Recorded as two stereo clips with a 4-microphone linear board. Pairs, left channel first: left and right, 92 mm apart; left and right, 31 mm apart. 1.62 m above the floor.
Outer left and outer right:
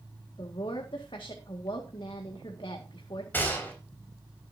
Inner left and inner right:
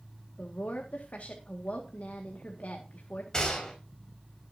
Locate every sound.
0.4 s a woman speaking: 70° left (ahead or behind), 2 m
3.3 s a gunshot: 20° left (ahead or behind), 5 m